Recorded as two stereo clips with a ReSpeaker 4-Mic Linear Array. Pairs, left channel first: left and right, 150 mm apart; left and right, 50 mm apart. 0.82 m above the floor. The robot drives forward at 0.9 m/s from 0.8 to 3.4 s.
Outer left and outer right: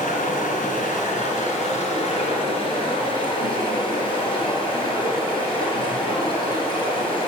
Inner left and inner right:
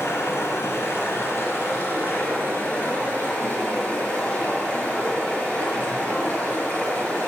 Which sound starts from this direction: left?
Running water, at 0.0 s.